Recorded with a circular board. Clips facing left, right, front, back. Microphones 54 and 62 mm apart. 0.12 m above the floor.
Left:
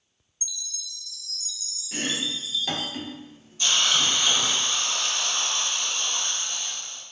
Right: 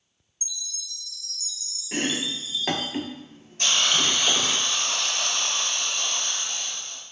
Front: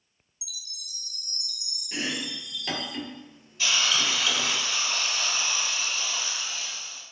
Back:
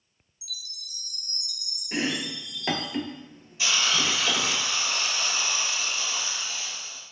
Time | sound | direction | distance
0.4 | a chime | 145° right | 0.9 m
1.9 | chopping | 130° right | 0.5 m
3.6 | a hiss | 100° right | 1.0 m